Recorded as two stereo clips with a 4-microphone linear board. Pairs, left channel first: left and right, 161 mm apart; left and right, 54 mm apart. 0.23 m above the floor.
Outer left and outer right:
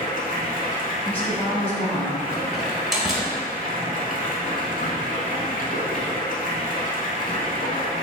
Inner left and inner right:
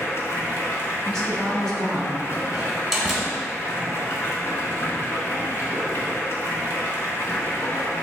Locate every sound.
0.0 s running water: 55° left (ahead or behind), 0.8 m
1.1 s a woman speaking: 10° left (ahead or behind), 1.2 m
2.5 s a door slam: centre (ahead or behind), 1.1 m